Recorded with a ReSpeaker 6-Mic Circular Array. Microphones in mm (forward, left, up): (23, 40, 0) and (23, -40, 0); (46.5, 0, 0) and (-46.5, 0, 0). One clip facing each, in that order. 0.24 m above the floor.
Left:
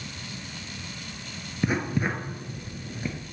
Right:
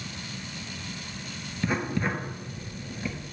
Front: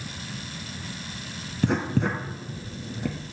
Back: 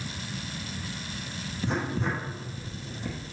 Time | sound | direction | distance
1.6 | writing | 15° left | 0.9 m